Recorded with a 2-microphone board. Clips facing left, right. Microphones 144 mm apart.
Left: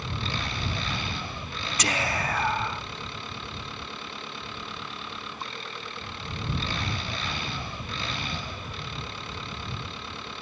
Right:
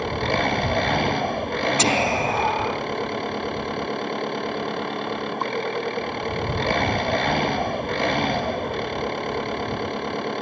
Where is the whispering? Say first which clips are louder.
Right 5 dB; 30° right (ahead or behind).